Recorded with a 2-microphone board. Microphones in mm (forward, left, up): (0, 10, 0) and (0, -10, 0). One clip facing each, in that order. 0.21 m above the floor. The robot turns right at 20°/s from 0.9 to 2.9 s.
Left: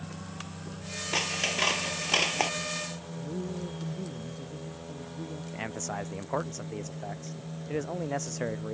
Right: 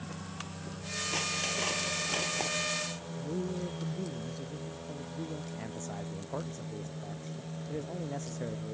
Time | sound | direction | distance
1.1 | scissors | 35° left (ahead or behind) | ?
3.2 | a man speaking | 25° right (ahead or behind) | ?
5.5 | a man speaking | 50° left (ahead or behind) | ?